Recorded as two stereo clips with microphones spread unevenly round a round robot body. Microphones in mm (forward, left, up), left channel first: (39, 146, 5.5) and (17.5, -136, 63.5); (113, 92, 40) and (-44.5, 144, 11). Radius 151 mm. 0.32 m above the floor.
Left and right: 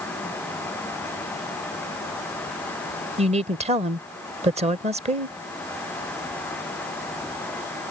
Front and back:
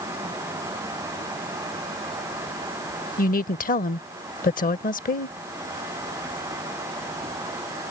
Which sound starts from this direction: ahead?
A woman speaking, at 3.2 s.